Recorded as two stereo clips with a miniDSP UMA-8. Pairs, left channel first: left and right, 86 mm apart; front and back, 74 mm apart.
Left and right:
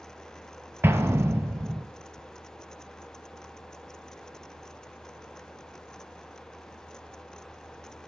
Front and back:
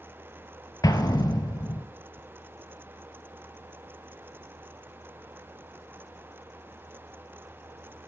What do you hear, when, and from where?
0.8 s an explosion: 30° right, 0.6 m